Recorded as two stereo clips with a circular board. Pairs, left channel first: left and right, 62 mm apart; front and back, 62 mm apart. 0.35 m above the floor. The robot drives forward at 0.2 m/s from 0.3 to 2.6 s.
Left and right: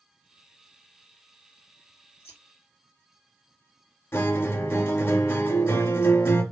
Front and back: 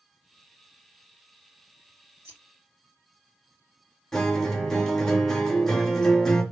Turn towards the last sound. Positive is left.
turn(degrees=80)